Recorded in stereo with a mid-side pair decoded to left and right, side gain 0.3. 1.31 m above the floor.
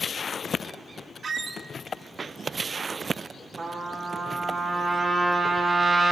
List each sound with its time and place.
1.2 s a squeak: 65° right, 0.9 m
3.6 s a trumpet: 65° right, 3.5 m